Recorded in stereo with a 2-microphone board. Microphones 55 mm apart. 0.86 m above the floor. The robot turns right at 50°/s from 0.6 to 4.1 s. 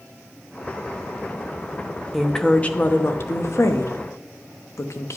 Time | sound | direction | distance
2.1 | a woman speaking | straight ahead | 0.9 m